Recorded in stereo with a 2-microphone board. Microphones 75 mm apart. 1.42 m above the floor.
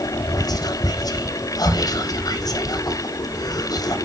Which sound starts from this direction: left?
Whispering, at 0.4 s.